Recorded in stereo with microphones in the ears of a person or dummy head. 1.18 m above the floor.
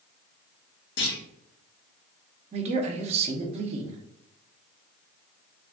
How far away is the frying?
No frying in this recording.